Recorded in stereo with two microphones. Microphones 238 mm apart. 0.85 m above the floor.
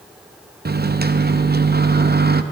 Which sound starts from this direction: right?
A microwave, at 0.7 s.